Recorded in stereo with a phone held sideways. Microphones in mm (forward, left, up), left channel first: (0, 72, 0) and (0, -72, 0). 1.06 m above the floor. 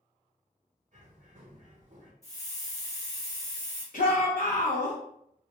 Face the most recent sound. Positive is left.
turn(degrees=60)  # may be behind; listen again after turning